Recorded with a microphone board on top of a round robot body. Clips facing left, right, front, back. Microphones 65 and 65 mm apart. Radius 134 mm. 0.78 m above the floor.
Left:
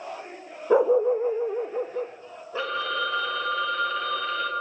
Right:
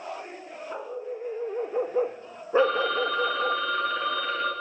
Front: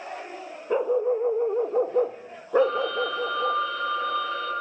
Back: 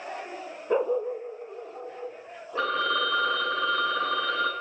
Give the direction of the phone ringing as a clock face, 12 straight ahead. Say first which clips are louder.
Right 5 dB, front 4 dB; 6 o'clock.